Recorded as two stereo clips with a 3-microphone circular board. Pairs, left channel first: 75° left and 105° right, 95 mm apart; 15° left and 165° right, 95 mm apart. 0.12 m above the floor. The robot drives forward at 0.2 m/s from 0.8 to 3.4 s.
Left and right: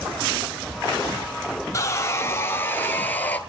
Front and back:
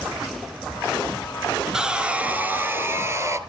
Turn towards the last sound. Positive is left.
turn(degrees=145)